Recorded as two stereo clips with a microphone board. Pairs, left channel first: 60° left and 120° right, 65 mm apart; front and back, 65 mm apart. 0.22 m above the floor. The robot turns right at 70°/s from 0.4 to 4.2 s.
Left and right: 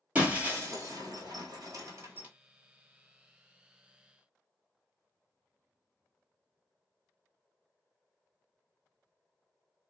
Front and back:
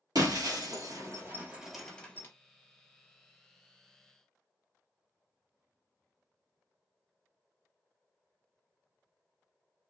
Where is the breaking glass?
170° left, 1.3 m; by 2.3 s 55° right, 1.3 m.